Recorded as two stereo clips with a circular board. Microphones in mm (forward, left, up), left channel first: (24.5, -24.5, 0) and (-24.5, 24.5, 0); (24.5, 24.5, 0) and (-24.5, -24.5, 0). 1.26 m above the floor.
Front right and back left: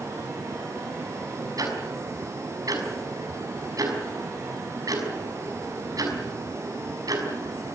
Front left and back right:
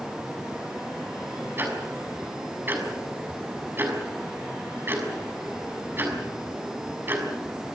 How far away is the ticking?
About 6 m.